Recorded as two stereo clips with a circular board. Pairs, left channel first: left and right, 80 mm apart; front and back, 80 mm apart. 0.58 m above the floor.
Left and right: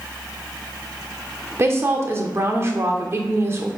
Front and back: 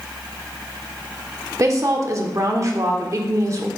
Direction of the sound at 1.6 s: 140° right.